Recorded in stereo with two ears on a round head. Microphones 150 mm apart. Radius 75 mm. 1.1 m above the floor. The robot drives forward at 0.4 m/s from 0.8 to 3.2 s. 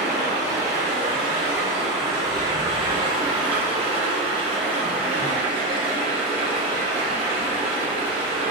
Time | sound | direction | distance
0.0 | running water | 20° right (ahead or behind) | 2.0 m